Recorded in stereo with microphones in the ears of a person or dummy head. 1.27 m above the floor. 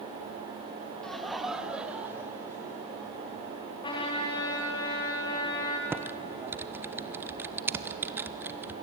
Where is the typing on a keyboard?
10° right (ahead or behind), 0.7 m.